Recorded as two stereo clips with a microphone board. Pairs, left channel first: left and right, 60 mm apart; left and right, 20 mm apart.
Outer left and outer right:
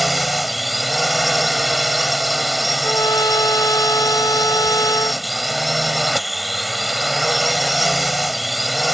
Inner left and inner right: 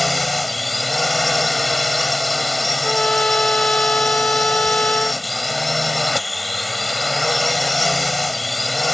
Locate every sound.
0.0 s a drone: centre (ahead or behind)
2.8 s a trumpet: 80° left